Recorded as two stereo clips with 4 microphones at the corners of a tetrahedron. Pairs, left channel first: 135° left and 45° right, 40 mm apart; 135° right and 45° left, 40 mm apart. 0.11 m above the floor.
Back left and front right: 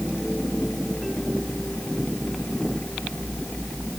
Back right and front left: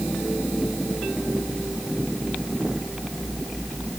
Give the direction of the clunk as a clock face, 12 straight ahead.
I don't hear a clunk.